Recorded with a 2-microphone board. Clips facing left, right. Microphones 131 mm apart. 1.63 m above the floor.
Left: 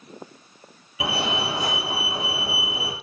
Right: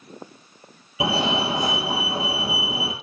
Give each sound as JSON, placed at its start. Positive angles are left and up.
{"t": 1.0, "sound": "a fire alarm", "side_deg": -25, "distance_m": 5.0}